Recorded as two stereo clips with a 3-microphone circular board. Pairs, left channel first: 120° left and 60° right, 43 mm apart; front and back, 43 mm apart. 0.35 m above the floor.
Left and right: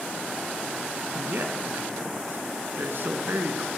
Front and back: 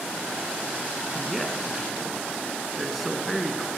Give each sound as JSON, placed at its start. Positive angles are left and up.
{"t": 1.1, "sound": "a man speaking", "azimuth_deg": -90, "distance_m": 4.0}